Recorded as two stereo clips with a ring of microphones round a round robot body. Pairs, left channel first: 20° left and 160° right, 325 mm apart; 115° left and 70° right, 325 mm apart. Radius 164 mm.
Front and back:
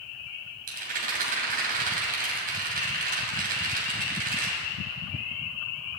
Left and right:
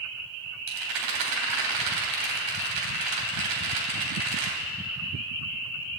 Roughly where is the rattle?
Right.